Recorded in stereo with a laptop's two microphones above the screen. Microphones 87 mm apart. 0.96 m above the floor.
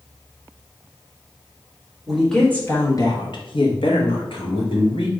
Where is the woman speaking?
Centre (ahead or behind), 1.2 m; by 5.1 s 70° left (ahead or behind), 2 m.